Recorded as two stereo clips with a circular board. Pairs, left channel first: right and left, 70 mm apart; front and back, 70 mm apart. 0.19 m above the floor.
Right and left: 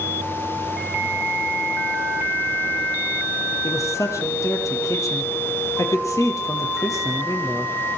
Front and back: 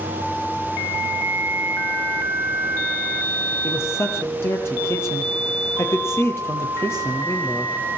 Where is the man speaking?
50° right, 6.5 m.